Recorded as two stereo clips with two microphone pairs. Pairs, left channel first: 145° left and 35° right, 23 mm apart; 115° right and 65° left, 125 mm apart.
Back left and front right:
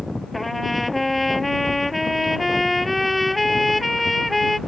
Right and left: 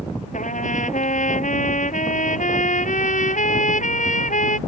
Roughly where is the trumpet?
Behind right.